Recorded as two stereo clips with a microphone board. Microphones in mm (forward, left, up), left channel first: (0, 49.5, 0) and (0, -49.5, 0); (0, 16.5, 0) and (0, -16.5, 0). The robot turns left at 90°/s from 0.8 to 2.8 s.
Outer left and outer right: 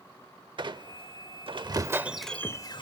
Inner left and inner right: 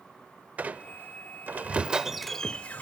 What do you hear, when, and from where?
0.6 s a squeak: 55° right, 0.6 m; by 2.8 s 125° left, 0.6 m